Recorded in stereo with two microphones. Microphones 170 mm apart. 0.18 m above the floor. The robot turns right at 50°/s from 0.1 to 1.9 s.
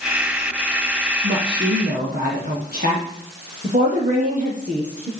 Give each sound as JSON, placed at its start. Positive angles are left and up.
{"t": 1.2, "sound": "a woman speaking", "azimuth_deg": -100, "distance_m": 5.5}
{"t": 3.6, "sound": "a woman speaking", "side_deg": -50, "distance_m": 5.5}